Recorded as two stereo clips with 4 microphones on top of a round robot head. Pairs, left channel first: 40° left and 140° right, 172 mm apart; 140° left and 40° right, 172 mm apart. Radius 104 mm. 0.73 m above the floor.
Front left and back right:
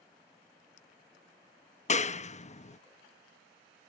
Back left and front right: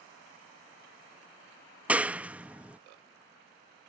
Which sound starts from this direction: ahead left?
A clap, at 1.9 s.